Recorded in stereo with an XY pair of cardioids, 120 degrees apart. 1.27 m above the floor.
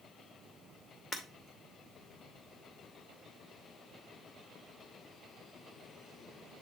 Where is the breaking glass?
40° left, 2 m.